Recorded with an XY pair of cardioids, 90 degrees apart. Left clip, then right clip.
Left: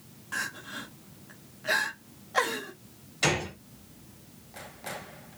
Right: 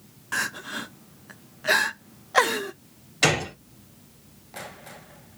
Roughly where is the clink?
I don't hear a clink.